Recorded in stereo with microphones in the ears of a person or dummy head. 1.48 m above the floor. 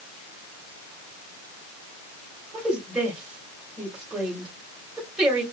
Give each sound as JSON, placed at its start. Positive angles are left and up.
{"t": 2.5, "sound": "a woman speaking", "side_deg": -10, "distance_m": 4.0}